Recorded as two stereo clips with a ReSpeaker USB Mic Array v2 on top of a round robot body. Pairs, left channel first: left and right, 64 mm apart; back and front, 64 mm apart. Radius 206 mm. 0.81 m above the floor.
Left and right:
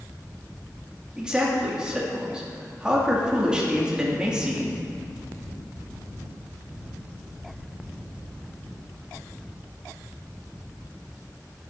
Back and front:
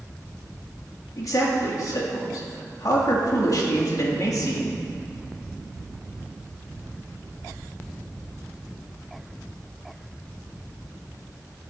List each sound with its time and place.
1.2 s a man speaking: 165° right, 2 m